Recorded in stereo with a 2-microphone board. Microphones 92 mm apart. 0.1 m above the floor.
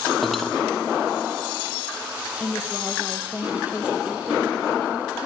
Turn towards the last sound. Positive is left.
turn(degrees=25)  # may be behind; listen again after turning